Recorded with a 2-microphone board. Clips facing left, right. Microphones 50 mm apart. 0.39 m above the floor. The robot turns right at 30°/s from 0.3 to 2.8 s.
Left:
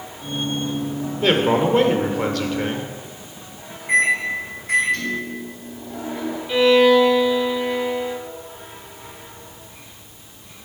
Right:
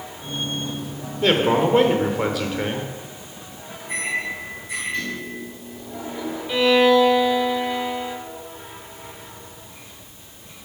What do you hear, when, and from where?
1.2 s a man speaking: centre (ahead or behind), 0.8 m; by 2.9 s 15° right (ahead or behind), 0.8 m
3.9 s a microwave: 75° left (ahead or behind), 3 m
6.5 s a violin: centre (ahead or behind), 0.9 m